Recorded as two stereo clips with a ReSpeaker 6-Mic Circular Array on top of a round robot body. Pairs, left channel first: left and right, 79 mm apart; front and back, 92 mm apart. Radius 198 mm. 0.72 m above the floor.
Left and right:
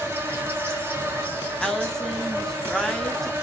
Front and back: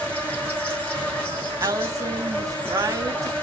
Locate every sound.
0.0 s an insect: 60° right, 1.3 m
1.6 s a woman speaking: 170° left, 0.7 m